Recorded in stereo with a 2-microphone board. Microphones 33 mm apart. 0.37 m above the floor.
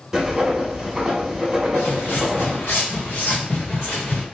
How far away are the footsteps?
About 2.0 m.